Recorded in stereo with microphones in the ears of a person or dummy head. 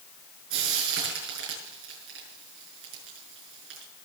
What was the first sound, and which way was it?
Frying, 80° right.